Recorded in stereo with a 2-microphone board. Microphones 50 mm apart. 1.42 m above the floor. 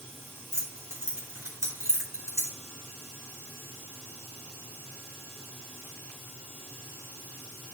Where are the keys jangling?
65° right (ahead or behind), 3 m.